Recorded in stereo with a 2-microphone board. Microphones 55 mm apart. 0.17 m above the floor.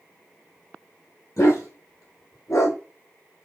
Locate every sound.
1.4 s a dog barking: 75° left (ahead or behind), 2.5 m; by 2.8 s 60° left (ahead or behind), 1.7 m